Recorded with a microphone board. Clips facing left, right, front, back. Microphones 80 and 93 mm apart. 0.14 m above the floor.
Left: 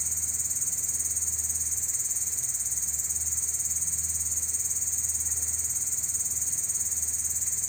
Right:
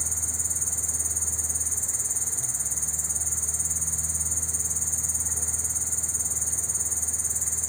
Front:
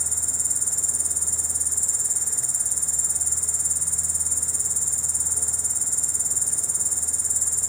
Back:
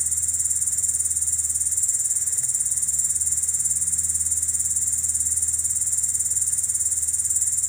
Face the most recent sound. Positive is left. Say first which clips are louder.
# right 6 dB, front 5 dB
turn(degrees=-35)